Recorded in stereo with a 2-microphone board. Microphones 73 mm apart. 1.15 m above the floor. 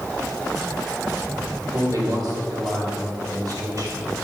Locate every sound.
1.7 s a man speaking: 60° right (ahead or behind), 2.5 m